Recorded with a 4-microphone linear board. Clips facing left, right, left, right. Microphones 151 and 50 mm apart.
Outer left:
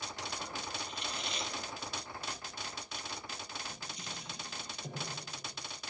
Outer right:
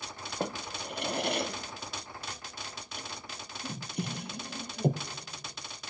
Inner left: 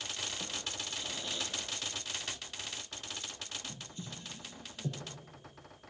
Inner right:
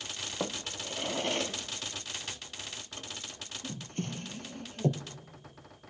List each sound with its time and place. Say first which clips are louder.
0.4 s a drawer: outer right 7 dB, inner right 5 dB; 60° right (ahead or behind), 1.1 m